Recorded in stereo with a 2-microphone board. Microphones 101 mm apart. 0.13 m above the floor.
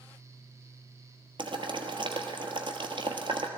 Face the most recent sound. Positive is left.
turn(degrees=-55)  # may be behind; listen again after turning